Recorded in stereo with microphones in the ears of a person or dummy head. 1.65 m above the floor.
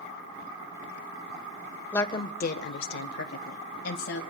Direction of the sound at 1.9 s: 10° left (ahead or behind).